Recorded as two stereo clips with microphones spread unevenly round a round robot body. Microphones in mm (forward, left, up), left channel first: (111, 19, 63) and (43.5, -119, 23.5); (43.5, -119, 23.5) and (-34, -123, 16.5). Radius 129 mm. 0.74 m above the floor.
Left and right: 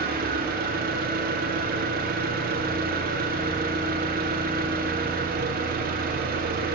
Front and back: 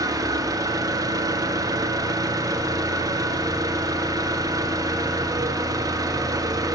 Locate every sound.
0.0 s an engine running: 130° right, 0.7 m